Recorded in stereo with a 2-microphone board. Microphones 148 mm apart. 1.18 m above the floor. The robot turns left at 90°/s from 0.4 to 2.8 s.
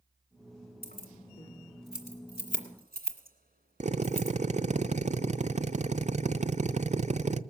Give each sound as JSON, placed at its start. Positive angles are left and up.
{"t": 0.8, "sound": "keys jangling", "side_deg": 85, "distance_m": 2.0}
{"t": 3.8, "sound": "a drill", "side_deg": -50, "distance_m": 0.5}